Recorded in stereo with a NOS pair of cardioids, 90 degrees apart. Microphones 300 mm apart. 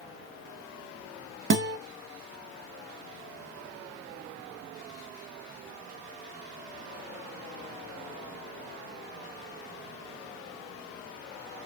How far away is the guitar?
About 0.9 m.